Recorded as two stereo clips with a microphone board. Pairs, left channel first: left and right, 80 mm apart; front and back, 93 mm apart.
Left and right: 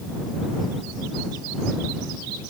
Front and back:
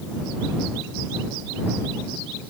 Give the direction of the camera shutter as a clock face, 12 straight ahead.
No camera shutter in this recording.